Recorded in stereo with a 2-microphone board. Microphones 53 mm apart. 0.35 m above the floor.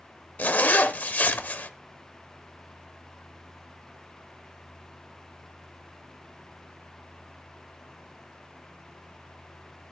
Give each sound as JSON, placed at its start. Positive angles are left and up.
{"t": 0.4, "sound": "a zipper", "side_deg": 35, "distance_m": 0.8}